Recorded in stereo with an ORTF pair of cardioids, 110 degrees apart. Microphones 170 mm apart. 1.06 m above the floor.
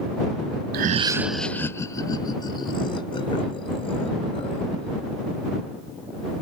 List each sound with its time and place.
0.7 s laughter: 65° right; by 4.9 s 35° left